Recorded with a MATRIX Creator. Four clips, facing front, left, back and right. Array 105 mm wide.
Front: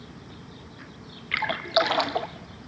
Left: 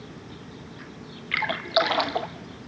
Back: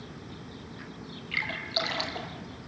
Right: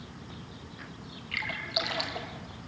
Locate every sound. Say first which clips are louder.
1.3 s a splash: left 11 dB, front 10 dB; 40° left, 1.0 m